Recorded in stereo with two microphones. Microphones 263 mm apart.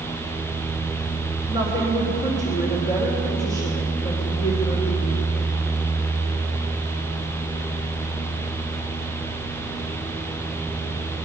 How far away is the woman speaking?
About 3 m.